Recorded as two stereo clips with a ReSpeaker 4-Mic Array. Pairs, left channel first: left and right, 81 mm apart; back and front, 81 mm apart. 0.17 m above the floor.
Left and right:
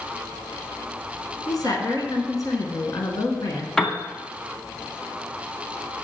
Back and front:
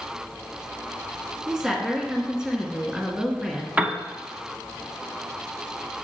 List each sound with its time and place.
1.5 s a woman speaking: 80° left, 1.5 m
3.8 s a piano: 20° left, 0.7 m